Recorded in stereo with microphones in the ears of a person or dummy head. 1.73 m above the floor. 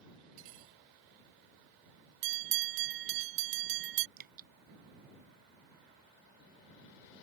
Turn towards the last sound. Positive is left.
turn(degrees=-50)  # may be behind; listen again after turning